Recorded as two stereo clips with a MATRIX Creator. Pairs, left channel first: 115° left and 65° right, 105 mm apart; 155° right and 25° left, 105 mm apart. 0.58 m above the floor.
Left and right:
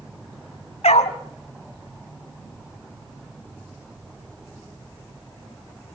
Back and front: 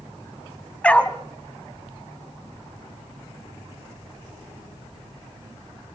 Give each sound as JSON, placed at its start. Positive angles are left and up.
{"t": 0.8, "sound": "a dog barking", "azimuth_deg": 125, "distance_m": 1.4}